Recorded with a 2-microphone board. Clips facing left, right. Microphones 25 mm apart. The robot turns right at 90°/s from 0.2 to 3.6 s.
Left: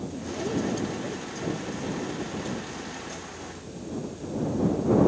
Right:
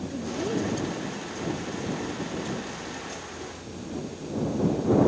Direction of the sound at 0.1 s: 50° right.